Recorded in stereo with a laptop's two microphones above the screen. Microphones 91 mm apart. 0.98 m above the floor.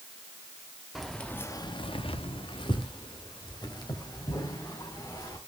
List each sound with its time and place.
0.9 s keys jangling: centre (ahead or behind), 1.1 m; by 5.4 s 45° left (ahead or behind), 5 m